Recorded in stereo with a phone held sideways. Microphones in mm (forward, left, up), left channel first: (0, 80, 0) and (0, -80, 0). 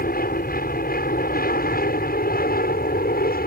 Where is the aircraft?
65° left (ahead or behind); by 3.5 s 70° left (ahead or behind).